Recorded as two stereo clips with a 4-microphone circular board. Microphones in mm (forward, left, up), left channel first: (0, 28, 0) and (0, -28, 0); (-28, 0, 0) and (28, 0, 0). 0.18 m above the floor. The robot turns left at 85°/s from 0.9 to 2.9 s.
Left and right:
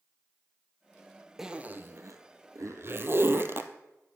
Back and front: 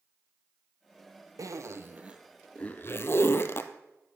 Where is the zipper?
5° right, 1.1 m; by 3.7 s 135° right, 1.1 m.